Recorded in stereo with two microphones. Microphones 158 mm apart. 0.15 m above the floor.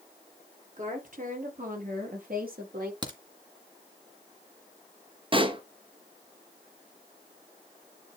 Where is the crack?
30° right (ahead or behind), 1.9 m.